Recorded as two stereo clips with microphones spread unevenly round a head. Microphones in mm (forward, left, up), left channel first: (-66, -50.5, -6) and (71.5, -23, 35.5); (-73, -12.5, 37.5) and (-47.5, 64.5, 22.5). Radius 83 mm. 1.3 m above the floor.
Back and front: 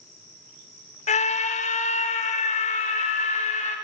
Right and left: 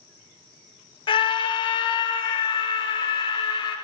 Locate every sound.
1.1 s a scream: 130° right, 1.7 m